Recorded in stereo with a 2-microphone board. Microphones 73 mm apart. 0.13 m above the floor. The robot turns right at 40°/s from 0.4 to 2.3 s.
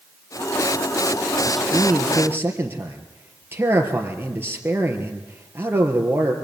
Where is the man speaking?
Straight behind, 3 m; by 6.3 s 150° right, 3 m.